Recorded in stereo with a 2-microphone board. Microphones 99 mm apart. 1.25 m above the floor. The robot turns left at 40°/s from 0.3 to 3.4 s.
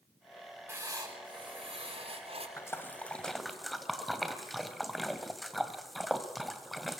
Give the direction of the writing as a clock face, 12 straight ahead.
1 o'clock.